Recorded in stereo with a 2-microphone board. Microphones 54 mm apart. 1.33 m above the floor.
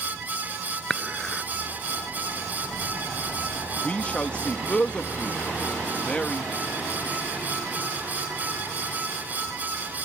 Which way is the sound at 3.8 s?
20° left (ahead or behind).